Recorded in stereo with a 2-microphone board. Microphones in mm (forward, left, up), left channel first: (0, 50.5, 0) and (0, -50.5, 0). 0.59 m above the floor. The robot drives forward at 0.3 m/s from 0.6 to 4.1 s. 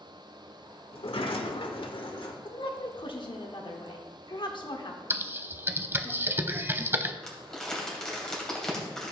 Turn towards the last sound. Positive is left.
turn(degrees=5)  # may be behind; listen again after turning